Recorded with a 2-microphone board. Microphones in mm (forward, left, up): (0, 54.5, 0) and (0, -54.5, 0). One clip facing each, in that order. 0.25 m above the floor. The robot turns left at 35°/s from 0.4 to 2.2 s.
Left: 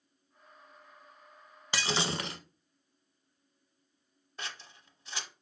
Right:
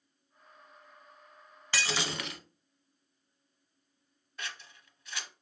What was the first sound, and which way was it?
Breaking glass, 20° left (ahead or behind).